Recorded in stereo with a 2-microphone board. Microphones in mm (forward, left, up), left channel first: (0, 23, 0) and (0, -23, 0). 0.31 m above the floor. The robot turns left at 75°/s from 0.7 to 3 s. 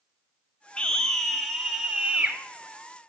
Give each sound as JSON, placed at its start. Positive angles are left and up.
{"t": 0.8, "sound": "a scream", "side_deg": 25, "distance_m": 1.2}